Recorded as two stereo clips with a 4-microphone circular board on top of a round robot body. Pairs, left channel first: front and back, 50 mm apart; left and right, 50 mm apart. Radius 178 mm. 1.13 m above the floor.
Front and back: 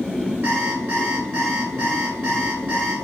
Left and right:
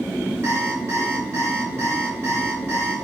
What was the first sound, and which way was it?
An alarm clock, 130° right.